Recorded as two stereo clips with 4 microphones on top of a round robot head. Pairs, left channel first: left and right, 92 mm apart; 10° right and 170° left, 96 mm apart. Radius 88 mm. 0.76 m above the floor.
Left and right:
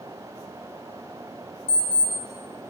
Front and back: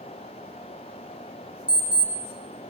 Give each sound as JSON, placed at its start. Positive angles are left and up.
{"t": 1.7, "sound": "an alarm clock", "azimuth_deg": 90, "distance_m": 1.0}